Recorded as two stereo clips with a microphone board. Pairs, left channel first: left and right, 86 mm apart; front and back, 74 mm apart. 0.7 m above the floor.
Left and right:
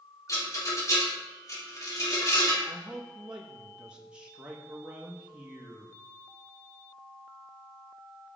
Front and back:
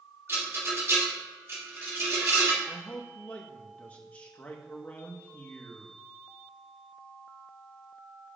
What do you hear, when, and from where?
0.3 s a rattle: 130° left, 1.8 m
2.7 s a man speaking: 30° right, 0.8 m